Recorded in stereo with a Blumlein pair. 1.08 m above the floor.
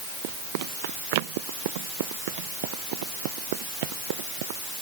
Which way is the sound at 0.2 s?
50° right.